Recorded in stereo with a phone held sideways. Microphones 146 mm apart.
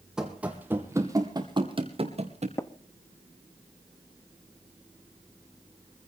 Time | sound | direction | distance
0.2 | running footsteps | 5° right (ahead or behind) | 2.5 m
2.6 | tapping | 20° left (ahead or behind) | 0.9 m